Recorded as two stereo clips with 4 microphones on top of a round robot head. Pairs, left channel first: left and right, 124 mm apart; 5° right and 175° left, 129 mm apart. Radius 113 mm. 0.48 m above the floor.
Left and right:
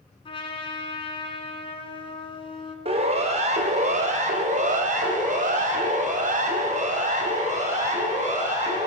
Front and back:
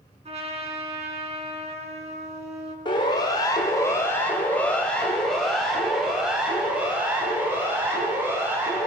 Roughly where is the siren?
Ahead right.